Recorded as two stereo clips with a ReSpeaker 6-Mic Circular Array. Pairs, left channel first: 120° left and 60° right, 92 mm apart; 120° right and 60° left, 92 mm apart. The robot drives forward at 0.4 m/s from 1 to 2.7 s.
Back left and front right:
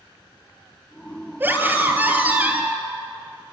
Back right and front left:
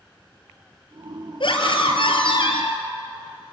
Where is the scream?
125° right, 4 m; by 2.8 s 130° right, 4 m.